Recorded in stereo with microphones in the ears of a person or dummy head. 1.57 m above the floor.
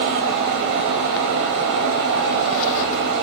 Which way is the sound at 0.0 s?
60° right (ahead or behind).